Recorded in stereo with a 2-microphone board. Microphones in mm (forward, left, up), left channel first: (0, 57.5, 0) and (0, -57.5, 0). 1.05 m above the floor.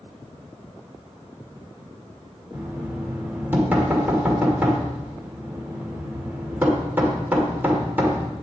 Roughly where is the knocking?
Centre.